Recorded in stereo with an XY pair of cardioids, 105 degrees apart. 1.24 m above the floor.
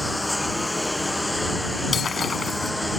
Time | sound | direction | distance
0.0 | a lawn mower | 15° left | ?
1.9 | breaking glass | 45° left | ?